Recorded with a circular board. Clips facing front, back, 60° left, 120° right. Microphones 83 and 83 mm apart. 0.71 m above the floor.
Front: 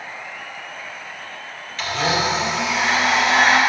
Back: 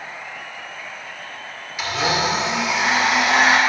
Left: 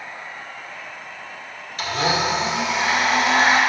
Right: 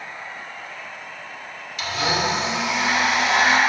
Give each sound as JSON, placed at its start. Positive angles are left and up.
{"t": 1.8, "sound": "a blender", "azimuth_deg": 105, "distance_m": 2.0}